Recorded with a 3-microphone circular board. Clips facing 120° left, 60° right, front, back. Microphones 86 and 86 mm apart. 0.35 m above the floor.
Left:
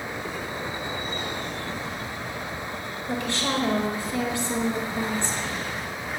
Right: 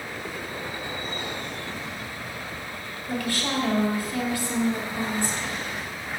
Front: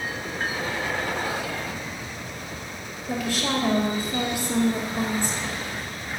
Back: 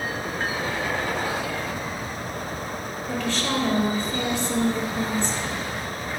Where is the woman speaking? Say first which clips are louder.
Left 1 dB, even; 75° left, 1.6 m.